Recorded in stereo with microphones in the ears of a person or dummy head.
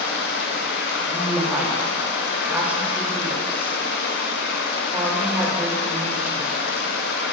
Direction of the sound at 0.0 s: 70° left (ahead or behind).